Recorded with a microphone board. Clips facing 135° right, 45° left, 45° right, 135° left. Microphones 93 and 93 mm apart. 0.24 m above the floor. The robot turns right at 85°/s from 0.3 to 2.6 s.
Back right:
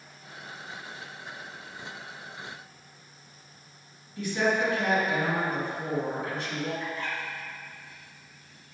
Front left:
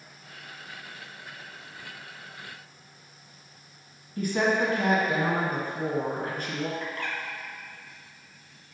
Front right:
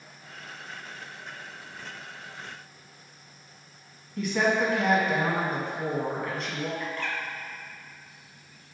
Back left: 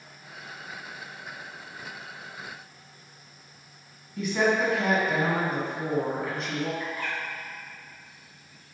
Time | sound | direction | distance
4.2 | a woman speaking | 45° left | 2.0 m
6.8 | a bird | 55° left | 1.5 m